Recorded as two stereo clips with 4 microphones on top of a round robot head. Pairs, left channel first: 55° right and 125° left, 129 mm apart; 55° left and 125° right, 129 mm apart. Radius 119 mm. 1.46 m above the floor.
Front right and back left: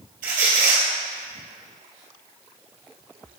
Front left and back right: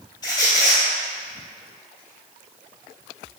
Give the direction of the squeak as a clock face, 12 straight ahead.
8 o'clock.